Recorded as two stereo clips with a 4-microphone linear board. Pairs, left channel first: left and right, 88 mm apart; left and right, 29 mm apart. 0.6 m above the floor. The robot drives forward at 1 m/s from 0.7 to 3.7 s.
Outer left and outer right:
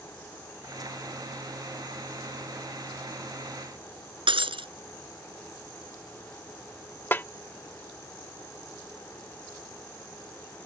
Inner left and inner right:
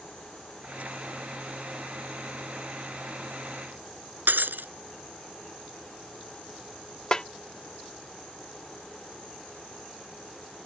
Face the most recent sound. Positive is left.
turn(degrees=25)  # may be behind; listen again after turning